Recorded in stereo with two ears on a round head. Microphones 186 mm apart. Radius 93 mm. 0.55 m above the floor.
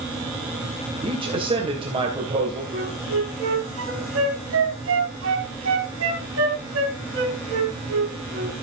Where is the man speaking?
25° right (ahead or behind), 3 m.